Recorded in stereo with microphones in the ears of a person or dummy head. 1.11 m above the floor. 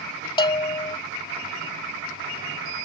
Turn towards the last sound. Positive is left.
turn(degrees=25)  # may be behind; listen again after turning